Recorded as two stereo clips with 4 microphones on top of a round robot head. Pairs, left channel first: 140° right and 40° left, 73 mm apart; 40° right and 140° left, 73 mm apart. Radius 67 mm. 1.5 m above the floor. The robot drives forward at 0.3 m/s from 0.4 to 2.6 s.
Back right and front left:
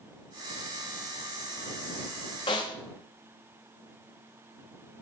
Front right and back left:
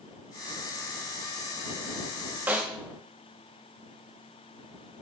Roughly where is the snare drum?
Behind right.